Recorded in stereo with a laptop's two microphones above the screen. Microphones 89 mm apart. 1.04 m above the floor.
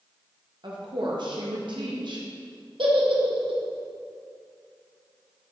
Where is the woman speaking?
60° right (ahead or behind), 1.2 m.